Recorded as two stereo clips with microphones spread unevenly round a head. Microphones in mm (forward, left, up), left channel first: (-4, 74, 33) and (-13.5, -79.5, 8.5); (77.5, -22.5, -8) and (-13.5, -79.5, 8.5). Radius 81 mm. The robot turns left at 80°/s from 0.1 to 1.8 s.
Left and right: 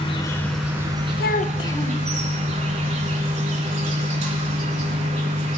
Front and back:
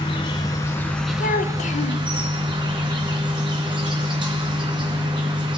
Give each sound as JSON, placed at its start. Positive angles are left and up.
{"t": 0.0, "sound": "an insect", "azimuth_deg": 25, "distance_m": 1.8}
{"t": 1.2, "sound": "a child speaking", "azimuth_deg": 60, "distance_m": 0.6}